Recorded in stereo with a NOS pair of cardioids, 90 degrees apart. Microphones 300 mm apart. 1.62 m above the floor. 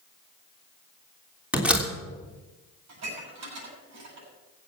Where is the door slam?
5° right, 3 m.